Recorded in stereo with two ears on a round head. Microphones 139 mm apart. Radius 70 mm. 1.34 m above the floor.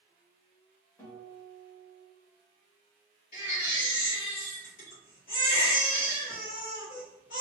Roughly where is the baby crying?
Left.